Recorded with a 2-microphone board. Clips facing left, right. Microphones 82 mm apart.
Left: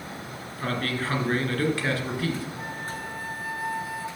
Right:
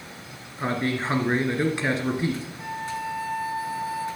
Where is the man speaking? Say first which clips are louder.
Right 3 dB; 20° right (ahead or behind), 2.0 m.